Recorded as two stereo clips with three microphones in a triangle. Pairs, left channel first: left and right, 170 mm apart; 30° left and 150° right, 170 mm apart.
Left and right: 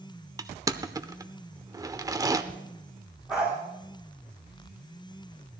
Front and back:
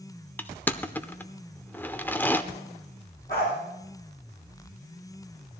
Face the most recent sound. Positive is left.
turn(degrees=-5)